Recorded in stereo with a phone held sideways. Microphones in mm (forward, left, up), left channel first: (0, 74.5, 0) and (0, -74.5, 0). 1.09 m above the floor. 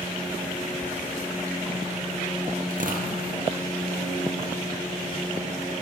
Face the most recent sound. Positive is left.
turn(degrees=-65)  # may be behind; listen again after turning